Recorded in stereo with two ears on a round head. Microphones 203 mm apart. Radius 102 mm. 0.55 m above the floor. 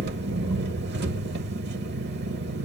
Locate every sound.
0.0 s an engine running: 50° right (ahead or behind), 0.9 m